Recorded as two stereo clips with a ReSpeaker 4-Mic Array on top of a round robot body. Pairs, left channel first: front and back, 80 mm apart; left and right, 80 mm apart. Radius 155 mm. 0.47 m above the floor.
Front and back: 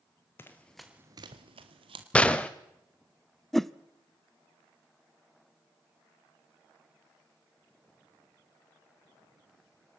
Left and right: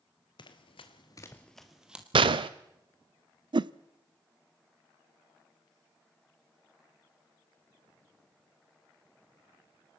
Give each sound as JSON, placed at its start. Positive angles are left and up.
{"t": 0.4, "sound": "running footsteps", "azimuth_deg": 65, "distance_m": 1.1}
{"t": 2.1, "sound": "a gunshot", "azimuth_deg": -75, "distance_m": 0.6}
{"t": 3.5, "sound": "a whoosh", "azimuth_deg": -85, "distance_m": 0.6}